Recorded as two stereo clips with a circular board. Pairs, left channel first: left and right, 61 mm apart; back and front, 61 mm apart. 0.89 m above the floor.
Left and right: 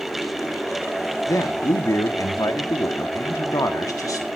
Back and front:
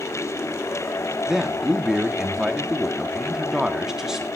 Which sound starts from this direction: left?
A man speaking, at 1.3 s.